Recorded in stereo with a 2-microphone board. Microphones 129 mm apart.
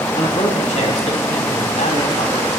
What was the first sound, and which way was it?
A man speaking, 65° left (ahead or behind).